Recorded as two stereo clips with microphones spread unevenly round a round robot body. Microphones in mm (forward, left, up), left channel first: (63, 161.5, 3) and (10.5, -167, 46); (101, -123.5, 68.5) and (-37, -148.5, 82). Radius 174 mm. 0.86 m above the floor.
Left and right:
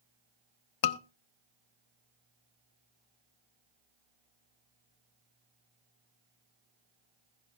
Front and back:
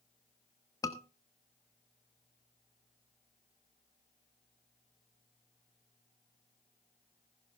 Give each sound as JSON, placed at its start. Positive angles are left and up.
{"t": 0.8, "sound": "a scream", "azimuth_deg": 80, "distance_m": 1.1}